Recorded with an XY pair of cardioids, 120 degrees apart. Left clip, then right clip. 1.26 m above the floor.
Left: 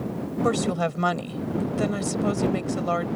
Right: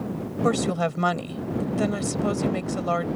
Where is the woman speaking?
5° right.